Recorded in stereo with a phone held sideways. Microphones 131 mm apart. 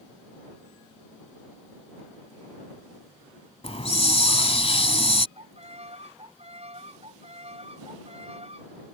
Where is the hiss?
50° left (ahead or behind).